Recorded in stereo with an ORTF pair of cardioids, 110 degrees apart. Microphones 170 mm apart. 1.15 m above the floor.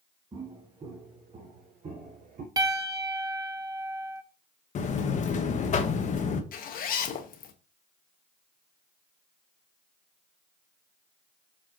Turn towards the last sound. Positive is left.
turn(degrees=55)